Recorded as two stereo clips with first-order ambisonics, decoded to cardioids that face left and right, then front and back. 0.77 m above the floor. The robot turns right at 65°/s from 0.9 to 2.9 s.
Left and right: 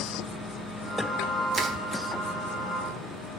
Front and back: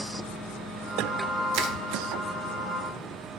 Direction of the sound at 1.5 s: 160° right.